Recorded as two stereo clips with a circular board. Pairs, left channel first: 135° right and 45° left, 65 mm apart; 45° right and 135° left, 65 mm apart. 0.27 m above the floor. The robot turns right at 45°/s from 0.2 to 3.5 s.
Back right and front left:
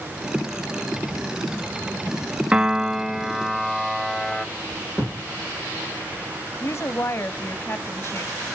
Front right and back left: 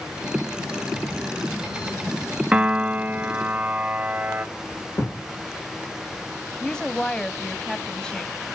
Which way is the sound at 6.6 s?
115° right.